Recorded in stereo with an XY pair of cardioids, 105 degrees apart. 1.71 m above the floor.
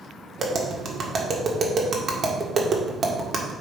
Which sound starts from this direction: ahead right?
Tapping, at 0.4 s.